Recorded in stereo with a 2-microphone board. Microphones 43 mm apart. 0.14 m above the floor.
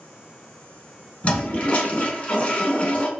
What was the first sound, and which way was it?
A toilet flushing, 30° left (ahead or behind).